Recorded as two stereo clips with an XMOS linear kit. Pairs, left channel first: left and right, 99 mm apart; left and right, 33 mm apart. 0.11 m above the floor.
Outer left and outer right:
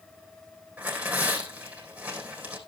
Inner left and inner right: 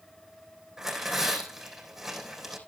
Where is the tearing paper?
15° right (ahead or behind), 3.5 m.